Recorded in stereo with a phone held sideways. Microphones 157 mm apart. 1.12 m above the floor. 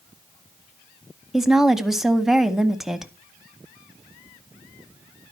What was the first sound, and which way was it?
A woman speaking, 5° right (ahead or behind).